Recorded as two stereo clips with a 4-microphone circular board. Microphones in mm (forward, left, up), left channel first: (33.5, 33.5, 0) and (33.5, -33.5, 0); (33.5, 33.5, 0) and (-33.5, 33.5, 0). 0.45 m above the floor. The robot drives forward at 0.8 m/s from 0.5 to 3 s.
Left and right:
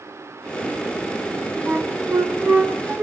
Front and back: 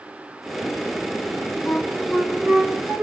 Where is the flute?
65° right, 1.1 m; by 3.0 s 130° right, 1.3 m.